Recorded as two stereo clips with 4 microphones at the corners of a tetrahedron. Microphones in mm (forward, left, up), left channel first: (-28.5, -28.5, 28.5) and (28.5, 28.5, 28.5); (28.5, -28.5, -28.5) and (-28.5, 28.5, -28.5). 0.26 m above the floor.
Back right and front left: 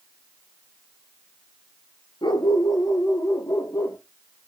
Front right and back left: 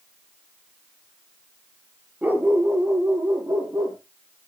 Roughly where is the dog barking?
Behind right.